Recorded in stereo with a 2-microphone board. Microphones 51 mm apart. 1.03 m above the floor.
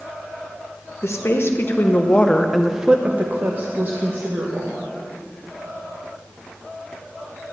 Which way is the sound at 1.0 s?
60° left (ahead or behind).